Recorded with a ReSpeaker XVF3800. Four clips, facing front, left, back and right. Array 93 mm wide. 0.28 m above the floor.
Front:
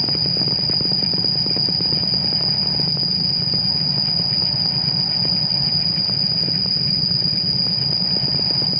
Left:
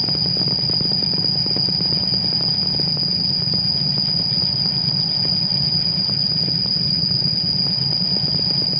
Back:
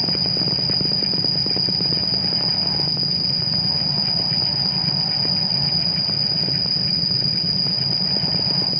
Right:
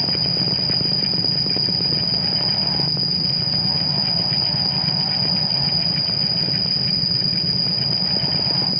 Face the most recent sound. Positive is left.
turn(degrees=105)